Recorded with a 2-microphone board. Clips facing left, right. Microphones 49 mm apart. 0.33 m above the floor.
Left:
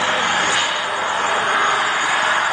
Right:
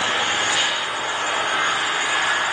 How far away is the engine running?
About 6 m.